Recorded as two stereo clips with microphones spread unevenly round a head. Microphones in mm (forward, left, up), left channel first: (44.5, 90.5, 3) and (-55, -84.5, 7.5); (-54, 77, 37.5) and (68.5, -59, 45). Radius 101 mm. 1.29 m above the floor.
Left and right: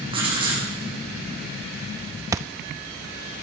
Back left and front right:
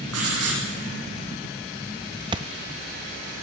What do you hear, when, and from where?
0.1 s writing: 50° right, 9.5 m
2.3 s a thud: 65° right, 0.6 m